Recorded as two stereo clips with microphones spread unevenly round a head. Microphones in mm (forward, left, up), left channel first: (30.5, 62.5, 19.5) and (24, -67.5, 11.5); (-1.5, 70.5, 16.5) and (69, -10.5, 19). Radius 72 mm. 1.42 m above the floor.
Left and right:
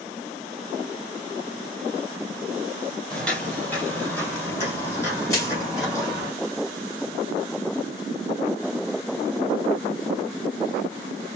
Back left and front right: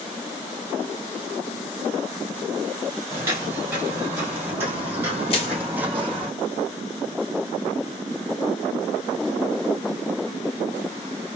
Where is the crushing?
145° left, 1.3 m.